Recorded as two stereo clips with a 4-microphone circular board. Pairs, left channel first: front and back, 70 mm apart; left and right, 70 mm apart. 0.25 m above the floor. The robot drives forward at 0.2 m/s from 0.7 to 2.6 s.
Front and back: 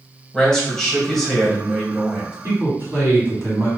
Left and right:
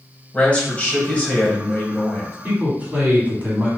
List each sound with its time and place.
0.3 s a man speaking: 70° left, 1.2 m; by 2.3 s 110° left, 1.2 m
2.4 s a man speaking: 145° right, 1.5 m